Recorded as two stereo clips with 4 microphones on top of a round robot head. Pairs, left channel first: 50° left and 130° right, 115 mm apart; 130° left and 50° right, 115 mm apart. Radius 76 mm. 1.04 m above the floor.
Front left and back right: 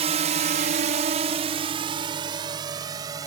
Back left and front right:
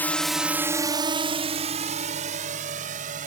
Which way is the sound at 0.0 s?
155° right.